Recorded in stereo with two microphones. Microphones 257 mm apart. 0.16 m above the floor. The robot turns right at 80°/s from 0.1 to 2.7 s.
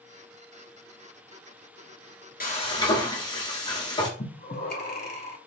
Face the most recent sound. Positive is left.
turn(degrees=40)  # may be behind; listen again after turning